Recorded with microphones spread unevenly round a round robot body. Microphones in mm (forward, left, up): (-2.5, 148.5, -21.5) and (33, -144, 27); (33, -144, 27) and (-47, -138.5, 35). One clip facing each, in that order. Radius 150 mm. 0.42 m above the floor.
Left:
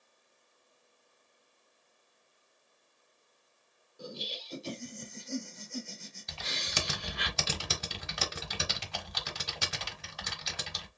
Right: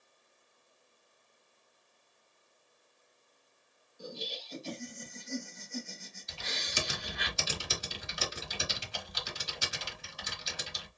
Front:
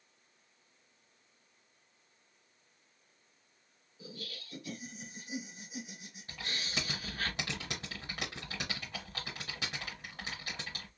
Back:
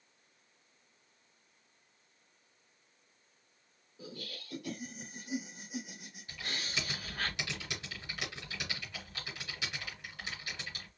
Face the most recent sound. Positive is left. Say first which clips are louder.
# left 1 dB, even
turn(degrees=65)